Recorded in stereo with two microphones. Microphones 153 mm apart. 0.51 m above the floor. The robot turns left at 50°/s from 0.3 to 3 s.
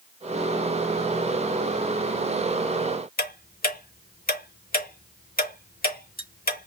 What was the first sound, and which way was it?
Ticking, 80° left.